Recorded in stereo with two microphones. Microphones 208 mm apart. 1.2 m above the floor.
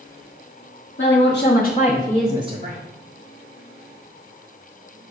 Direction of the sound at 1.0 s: 65° left (ahead or behind).